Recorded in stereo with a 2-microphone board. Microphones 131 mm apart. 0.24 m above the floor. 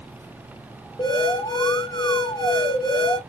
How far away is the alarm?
About 1.5 m.